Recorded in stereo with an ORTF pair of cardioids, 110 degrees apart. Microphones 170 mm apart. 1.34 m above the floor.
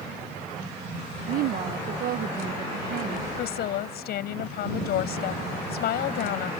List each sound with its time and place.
1.3 s a woman speaking: 65° right
3.4 s a woman speaking: 70° left